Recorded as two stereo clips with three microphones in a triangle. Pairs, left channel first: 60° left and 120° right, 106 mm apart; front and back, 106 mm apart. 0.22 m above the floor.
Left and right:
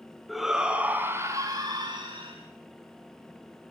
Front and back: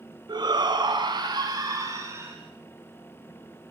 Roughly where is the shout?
Behind left.